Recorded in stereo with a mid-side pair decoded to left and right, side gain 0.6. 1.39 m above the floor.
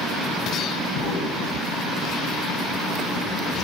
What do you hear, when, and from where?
0.9 s an explosion: 65° left, 7 m